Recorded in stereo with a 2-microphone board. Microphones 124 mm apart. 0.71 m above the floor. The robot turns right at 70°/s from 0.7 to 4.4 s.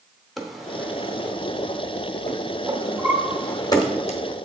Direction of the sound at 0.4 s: Centre (ahead or behind).